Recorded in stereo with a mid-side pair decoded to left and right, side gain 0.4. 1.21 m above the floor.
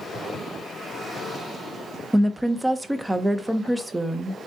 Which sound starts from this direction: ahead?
A woman speaking, at 2.1 s.